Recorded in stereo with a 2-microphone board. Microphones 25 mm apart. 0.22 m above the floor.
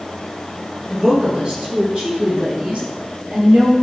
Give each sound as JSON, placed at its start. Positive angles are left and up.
{"t": 0.9, "sound": "a woman speaking", "side_deg": -35, "distance_m": 3.0}